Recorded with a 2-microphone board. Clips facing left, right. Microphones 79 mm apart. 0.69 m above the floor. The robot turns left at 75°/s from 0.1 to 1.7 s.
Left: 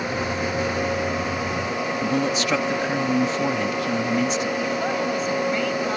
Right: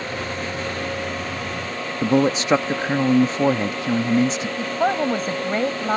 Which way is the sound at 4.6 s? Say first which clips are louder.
Right 3 dB; 40° right (ahead or behind).